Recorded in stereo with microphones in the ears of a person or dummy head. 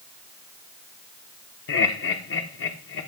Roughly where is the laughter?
Left.